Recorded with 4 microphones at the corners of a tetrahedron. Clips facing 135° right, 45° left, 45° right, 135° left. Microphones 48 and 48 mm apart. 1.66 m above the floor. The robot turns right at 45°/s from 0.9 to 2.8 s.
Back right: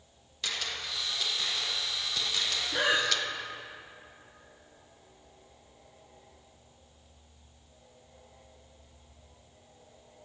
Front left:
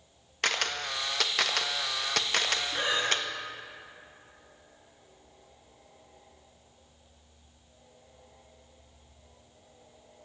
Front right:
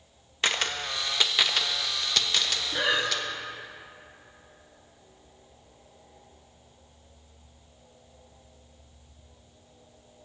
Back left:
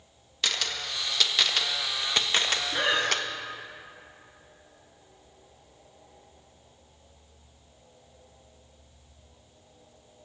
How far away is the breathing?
About 1.2 m.